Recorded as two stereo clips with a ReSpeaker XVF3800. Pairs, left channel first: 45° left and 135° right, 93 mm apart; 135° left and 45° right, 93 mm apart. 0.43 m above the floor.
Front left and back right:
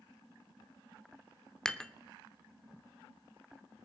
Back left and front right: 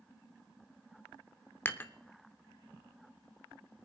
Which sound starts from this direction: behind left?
Dishes clattering, at 1.6 s.